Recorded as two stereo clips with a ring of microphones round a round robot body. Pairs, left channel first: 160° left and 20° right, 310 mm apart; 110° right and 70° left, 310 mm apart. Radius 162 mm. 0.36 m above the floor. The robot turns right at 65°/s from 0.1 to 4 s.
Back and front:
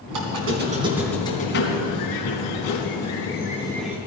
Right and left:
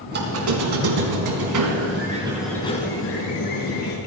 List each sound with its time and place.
0.1 s a squeak: 5° left, 3.5 m; by 4.0 s 105° right, 3.5 m